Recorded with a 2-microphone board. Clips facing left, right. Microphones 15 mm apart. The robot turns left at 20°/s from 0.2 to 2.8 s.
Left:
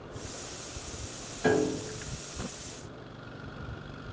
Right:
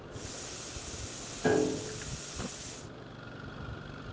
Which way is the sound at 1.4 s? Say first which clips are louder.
Left 1 dB; 70° left (ahead or behind).